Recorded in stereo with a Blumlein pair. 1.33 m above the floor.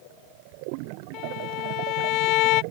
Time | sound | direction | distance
1.1 | a violin | 40° left | ?